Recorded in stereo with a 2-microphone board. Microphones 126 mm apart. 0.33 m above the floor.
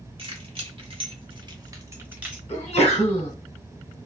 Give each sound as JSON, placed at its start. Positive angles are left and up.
{"t": 0.2, "sound": "keys jangling", "side_deg": -45, "distance_m": 1.2}
{"t": 2.5, "sound": "a sneeze", "side_deg": 50, "distance_m": 2.0}